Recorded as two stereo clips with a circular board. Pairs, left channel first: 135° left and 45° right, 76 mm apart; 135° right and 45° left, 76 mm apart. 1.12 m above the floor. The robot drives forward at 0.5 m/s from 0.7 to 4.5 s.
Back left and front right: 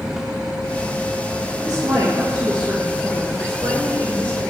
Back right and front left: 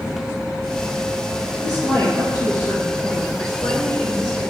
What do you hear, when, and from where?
1.6 s a woman speaking: 75° right, 3.5 m; by 4.4 s 95° right, 3.5 m